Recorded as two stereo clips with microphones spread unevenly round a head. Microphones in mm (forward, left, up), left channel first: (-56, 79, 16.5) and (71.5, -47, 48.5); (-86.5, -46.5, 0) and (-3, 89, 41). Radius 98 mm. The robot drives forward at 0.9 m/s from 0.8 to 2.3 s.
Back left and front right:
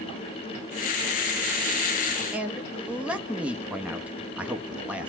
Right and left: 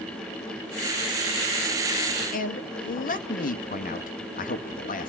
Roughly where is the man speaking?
Behind right.